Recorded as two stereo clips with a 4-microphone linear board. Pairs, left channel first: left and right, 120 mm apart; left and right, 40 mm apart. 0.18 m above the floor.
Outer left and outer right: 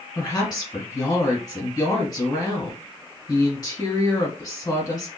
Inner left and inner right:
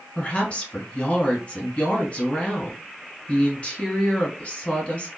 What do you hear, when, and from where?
0.1 s a woman speaking: 30° left (ahead or behind), 1.4 m